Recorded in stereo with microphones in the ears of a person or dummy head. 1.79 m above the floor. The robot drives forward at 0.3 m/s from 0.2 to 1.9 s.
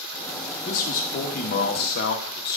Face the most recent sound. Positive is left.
turn(degrees=55)  # may be behind; listen again after turning